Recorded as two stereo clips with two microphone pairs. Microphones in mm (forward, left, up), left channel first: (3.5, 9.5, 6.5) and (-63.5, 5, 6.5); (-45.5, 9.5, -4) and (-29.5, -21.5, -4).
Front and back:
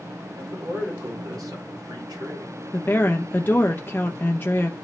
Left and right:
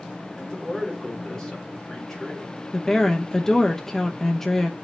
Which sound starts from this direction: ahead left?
A woman speaking, at 2.7 s.